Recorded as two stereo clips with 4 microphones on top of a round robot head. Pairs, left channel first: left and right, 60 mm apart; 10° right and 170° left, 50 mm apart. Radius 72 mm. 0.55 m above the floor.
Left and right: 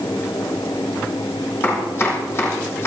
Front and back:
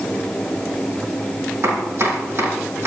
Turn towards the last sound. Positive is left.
turn(degrees=140)